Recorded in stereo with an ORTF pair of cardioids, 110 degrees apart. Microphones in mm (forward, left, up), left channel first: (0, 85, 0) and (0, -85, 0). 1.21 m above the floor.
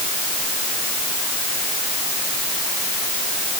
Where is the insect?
No insect in this recording.